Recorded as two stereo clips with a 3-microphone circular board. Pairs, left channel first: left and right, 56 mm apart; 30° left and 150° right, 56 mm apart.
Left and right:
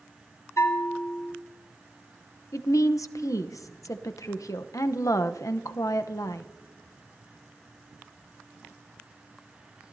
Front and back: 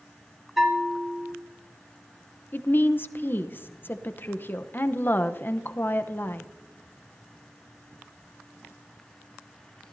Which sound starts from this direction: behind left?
A bell, at 0.6 s.